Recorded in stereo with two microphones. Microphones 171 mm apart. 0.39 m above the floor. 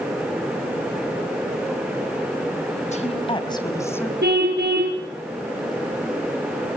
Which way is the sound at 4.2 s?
80° right.